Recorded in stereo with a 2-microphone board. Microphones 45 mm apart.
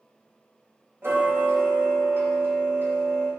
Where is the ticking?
85° right, 2.5 m.